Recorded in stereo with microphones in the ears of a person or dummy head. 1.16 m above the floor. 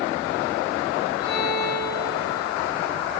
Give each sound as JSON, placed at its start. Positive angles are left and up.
{"t": 1.2, "sound": "a violin", "side_deg": 30, "distance_m": 4.0}